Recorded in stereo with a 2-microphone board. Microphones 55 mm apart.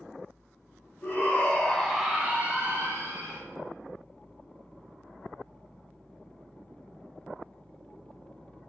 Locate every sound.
1.0 s a shout: 35° left (ahead or behind), 0.8 m; by 3.4 s 65° right (ahead or behind), 0.9 m